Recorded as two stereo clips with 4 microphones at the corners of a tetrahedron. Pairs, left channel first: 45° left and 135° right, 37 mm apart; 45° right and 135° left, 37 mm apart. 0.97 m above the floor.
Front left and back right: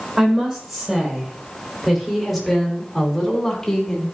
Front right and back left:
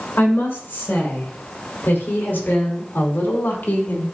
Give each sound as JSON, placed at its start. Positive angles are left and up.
{"t": 0.2, "sound": "a woman speaking", "azimuth_deg": -60, "distance_m": 4.5}